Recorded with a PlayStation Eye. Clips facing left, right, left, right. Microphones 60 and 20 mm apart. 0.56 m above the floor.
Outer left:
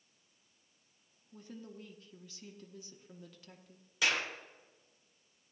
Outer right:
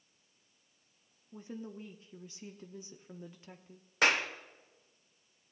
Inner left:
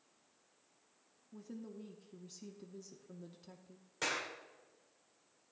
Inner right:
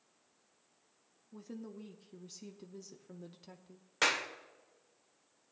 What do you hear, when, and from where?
1.3 s a woman speaking: 25° right (ahead or behind), 0.8 m
4.0 s a clap: 50° right (ahead or behind), 1.4 m